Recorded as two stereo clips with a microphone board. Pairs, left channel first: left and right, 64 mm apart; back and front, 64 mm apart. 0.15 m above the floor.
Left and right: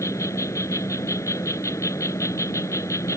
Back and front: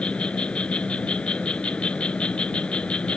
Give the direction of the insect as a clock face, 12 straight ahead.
8 o'clock.